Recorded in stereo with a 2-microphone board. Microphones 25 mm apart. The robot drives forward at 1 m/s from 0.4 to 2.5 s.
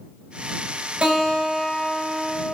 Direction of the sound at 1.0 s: 65° right (ahead or behind).